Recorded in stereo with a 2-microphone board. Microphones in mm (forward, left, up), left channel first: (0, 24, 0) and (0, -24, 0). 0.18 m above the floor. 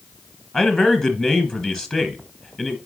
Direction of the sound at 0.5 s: 20° left (ahead or behind).